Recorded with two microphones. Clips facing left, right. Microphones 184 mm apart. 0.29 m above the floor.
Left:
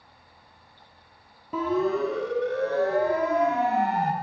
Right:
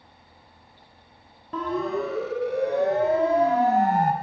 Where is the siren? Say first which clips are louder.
Left 2 dB; 10° left (ahead or behind), 2 m; by 4.1 s 50° right (ahead or behind), 1.7 m.